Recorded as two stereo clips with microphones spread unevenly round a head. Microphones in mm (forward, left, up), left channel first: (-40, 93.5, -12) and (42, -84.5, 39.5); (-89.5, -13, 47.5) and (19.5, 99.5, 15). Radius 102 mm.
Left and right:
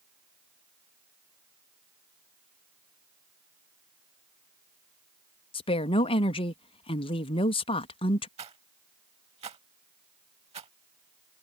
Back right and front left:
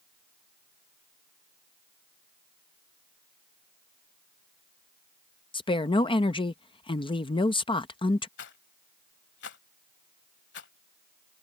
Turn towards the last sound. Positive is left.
turn(degrees=-125)